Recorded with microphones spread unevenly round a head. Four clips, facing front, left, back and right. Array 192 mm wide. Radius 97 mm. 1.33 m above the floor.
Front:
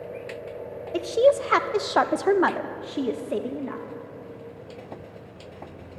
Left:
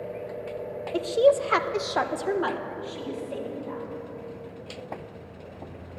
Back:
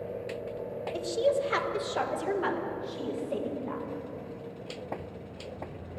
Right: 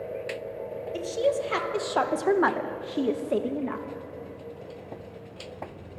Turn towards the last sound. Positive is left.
turn(degrees=-60)